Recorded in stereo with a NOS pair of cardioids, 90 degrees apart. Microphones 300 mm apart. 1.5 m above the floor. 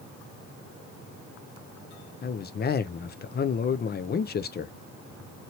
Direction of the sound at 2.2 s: 35° left.